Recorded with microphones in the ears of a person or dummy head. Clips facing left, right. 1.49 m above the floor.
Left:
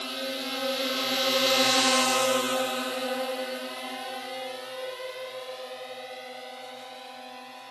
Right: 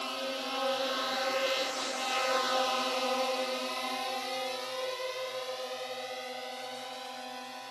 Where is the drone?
20° left (ahead or behind); by 7.7 s centre (ahead or behind).